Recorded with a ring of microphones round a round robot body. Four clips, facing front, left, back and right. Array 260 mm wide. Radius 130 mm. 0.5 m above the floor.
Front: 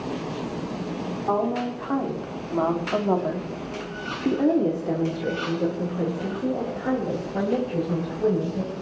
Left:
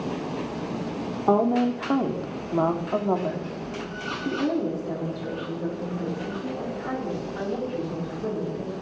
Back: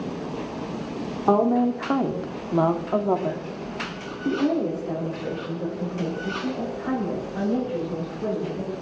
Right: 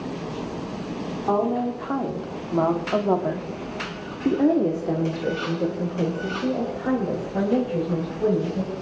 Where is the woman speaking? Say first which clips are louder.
Left 2 dB, back 6 dB; 145° left, 1.6 m; by 8.7 s 55° right, 4 m.